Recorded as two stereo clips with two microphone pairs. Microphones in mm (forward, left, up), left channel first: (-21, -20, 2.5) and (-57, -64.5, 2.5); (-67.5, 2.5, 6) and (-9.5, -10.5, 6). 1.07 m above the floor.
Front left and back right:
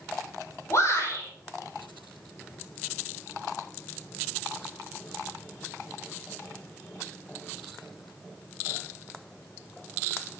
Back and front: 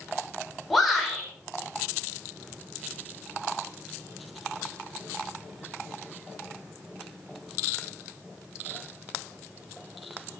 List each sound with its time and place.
0.7 s a shout: 80° left, 5 m